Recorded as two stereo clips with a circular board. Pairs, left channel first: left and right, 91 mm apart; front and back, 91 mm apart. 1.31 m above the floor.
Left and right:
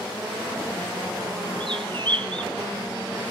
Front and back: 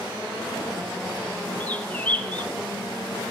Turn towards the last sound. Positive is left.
turn(degrees=-70)